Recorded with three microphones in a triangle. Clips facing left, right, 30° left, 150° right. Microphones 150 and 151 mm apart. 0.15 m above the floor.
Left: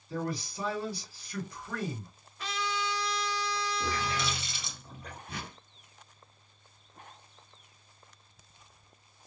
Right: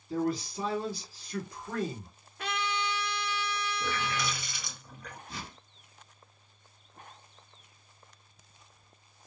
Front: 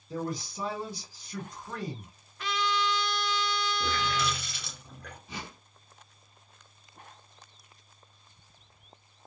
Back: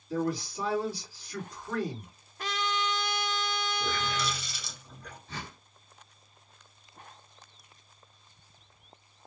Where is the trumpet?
110° right, 0.5 m.